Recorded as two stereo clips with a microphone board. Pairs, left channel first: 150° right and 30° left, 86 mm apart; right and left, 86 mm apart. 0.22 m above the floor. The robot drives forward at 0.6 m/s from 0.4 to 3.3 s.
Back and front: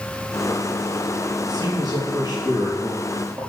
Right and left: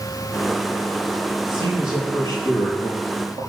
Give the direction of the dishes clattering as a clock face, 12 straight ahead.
I don't hear dishes clattering.